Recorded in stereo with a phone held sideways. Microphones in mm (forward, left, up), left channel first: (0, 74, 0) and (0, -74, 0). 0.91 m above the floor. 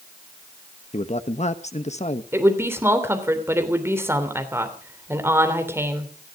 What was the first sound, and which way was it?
A man speaking, 50° left (ahead or behind).